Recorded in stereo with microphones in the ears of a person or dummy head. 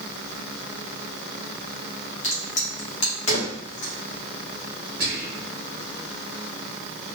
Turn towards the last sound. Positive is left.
turn(degrees=-40)  # may be behind; listen again after turning